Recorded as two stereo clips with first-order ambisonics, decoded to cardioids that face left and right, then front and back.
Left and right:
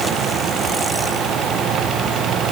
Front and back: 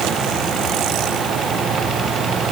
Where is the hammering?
I don't hear hammering.